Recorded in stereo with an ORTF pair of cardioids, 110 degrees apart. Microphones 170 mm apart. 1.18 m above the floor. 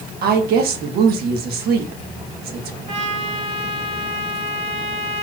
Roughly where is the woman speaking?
Right.